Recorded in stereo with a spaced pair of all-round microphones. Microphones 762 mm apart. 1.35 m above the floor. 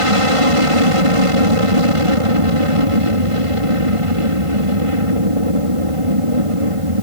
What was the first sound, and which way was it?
An aircraft, 45° right (ahead or behind).